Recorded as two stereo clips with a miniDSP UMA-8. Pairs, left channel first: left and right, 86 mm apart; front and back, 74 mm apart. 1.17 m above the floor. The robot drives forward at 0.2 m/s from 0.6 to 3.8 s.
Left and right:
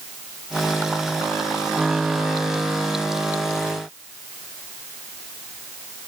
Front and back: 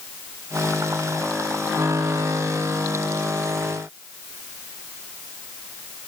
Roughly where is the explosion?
No explosion in this recording.